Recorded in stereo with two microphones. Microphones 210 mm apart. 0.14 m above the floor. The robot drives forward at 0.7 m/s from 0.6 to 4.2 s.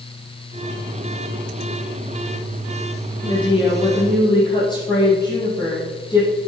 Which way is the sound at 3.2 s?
20° left (ahead or behind).